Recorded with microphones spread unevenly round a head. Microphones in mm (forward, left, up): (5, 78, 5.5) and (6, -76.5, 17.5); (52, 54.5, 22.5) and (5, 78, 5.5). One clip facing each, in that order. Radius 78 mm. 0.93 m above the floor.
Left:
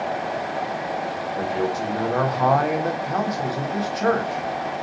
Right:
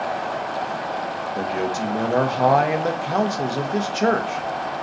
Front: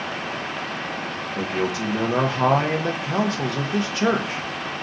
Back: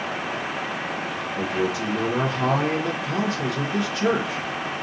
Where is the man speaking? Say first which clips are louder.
Even, even; 60° right, 0.7 m.